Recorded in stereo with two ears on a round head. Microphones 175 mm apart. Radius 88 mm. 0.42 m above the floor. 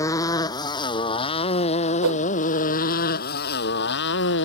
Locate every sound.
0.0 s a motorcycle: 15° left (ahead or behind); by 4.5 s 65° left (ahead or behind)
2.0 s a whoosh: 85° right